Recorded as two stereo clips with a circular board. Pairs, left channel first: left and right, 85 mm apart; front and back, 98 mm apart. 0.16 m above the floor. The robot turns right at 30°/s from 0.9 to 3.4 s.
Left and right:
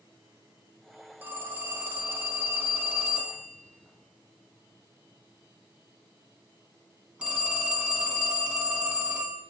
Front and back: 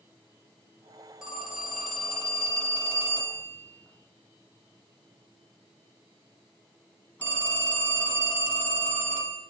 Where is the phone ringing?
105° right, 0.9 m; by 9.4 s 40° right, 0.9 m.